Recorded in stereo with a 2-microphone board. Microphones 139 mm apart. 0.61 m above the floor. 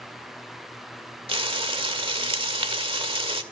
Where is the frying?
40° right (ahead or behind), 1.7 m.